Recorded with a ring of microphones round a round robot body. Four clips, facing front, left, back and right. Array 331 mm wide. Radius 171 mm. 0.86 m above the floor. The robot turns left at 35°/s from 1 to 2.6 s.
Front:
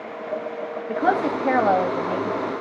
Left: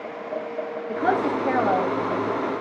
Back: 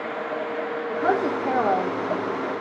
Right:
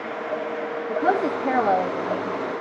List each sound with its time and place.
0.9 s a woman speaking: 25° left, 1.0 m; by 2.5 s 25° right, 1.0 m